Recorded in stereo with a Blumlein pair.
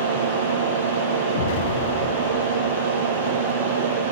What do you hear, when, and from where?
0.0 s a fan: 60° right, 7.5 m
1.3 s an explosion: 55° left, 3 m